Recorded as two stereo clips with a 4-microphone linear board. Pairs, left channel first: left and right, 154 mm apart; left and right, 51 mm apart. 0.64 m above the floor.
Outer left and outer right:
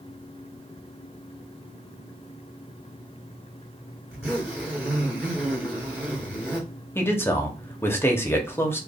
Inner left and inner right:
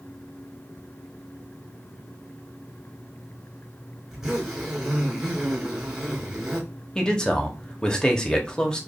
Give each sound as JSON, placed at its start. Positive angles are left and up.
{"t": 4.1, "sound": "a zipper", "side_deg": -10, "distance_m": 2.5}
{"t": 7.0, "sound": "a man speaking", "side_deg": 15, "distance_m": 1.0}